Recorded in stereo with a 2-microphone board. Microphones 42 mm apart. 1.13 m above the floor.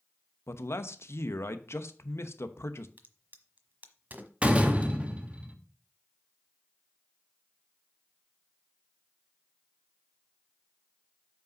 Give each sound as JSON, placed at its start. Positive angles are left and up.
{"t": 0.5, "sound": "a man speaking", "side_deg": 75, "distance_m": 0.9}
{"t": 3.0, "sound": "a crack", "side_deg": -40, "distance_m": 1.2}
{"t": 4.4, "sound": "a door slam", "side_deg": -30, "distance_m": 1.2}